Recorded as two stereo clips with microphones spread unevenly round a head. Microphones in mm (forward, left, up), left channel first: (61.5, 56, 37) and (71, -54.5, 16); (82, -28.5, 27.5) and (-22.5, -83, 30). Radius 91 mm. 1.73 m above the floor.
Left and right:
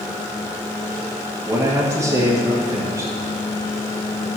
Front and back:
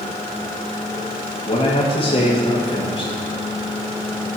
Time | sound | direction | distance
1.4 | a man speaking | 25° right | 2 m